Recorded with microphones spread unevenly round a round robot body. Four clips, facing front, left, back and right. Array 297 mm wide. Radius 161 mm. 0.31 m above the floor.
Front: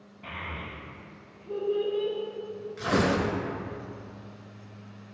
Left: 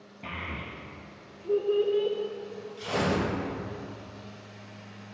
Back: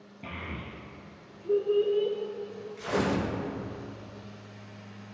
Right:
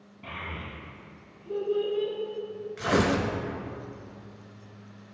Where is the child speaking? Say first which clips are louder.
Left 1 dB, front 1 dB; 160° left, 2.5 m; by 2.1 s 130° left, 3 m.